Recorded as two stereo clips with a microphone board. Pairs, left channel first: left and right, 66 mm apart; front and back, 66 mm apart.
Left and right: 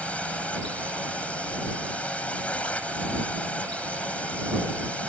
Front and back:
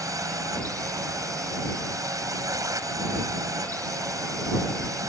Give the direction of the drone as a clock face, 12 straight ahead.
7 o'clock.